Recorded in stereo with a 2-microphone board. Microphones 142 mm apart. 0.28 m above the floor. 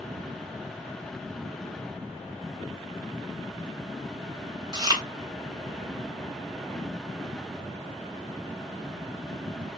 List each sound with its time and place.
4.7 s chewing: 30° right (ahead or behind), 0.8 m